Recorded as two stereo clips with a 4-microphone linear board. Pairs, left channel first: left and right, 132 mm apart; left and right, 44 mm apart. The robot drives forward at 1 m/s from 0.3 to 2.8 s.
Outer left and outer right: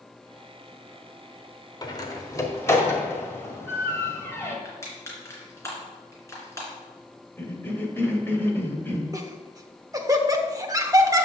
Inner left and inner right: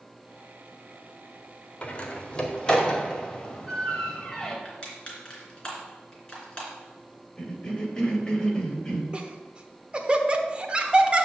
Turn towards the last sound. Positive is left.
turn(degrees=-25)  # may be behind; listen again after turning